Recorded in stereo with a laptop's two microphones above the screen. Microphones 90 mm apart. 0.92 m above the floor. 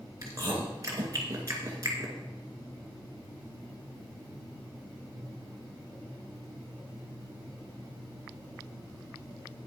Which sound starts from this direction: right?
Chewing, at 0.2 s.